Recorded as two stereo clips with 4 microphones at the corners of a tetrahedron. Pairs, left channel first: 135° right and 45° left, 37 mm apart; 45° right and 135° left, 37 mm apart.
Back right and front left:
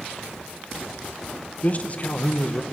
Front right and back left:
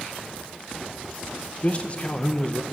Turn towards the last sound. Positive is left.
turn(degrees=-90)